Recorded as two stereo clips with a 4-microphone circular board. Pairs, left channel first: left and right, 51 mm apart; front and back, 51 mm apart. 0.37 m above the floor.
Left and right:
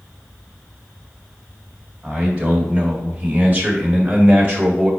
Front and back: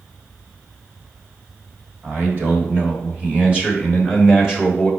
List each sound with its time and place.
2.0 s a man speaking: 150° right, 2.5 m; by 4.9 s 95° right, 1.7 m